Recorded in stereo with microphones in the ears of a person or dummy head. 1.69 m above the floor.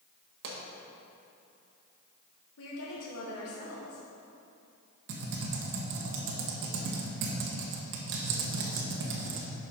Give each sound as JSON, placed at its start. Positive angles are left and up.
{"t": 0.4, "sound": "a pop", "side_deg": -60, "distance_m": 1.6}
{"t": 2.6, "sound": "a woman speaking", "side_deg": 75, "distance_m": 1.5}
{"t": 5.1, "sound": "typing on a keyboard", "side_deg": -65, "distance_m": 1.4}